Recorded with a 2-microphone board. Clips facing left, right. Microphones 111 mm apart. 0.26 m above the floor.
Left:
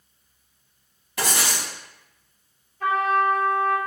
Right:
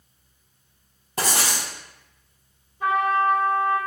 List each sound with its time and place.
1.2 s writing: 40° right (ahead or behind), 0.9 m
2.8 s a trumpet: 20° right (ahead or behind), 1.8 m